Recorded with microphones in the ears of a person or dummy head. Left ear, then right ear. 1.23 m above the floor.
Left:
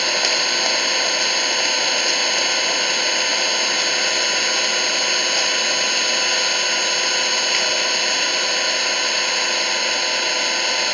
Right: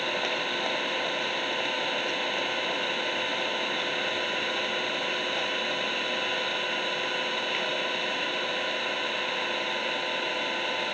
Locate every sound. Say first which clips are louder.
0.0 s an engine running: left 10 dB; 75° left (ahead or behind)